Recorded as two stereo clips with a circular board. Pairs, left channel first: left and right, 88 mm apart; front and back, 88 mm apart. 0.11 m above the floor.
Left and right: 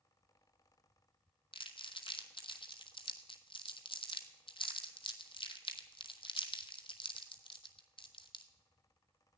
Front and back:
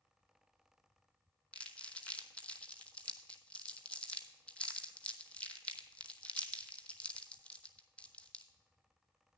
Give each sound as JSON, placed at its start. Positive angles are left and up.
{"t": 1.5, "sound": "crumpling", "azimuth_deg": 75, "distance_m": 0.9}